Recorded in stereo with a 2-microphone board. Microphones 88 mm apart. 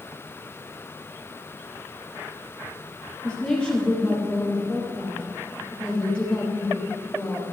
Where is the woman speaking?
10° left (ahead or behind), 4 m.